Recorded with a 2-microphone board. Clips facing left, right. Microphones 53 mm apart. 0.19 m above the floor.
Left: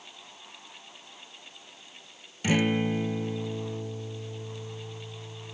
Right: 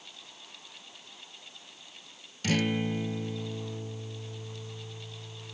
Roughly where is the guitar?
Centre.